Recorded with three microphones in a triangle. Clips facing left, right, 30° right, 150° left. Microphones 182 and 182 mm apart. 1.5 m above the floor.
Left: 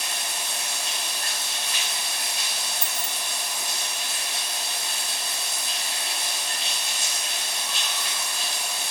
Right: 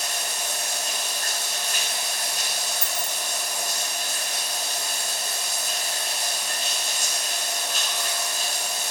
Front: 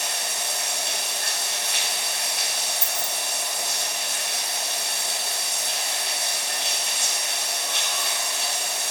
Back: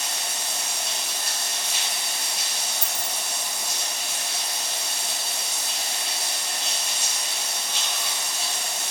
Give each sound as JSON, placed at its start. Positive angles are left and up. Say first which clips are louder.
{"t": 0.0, "sound": "running water", "louder": "right 3 dB, front 2 dB", "azimuth_deg": -45, "distance_m": 4.0}
{"t": 2.8, "sound": "keys jangling", "louder": "right 3 dB, front 2 dB", "azimuth_deg": -130, "distance_m": 1.7}